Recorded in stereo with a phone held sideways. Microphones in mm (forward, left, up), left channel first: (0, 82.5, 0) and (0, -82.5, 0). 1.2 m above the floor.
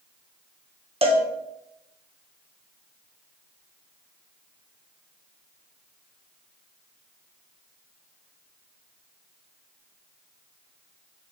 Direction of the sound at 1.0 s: 40° right (ahead or behind).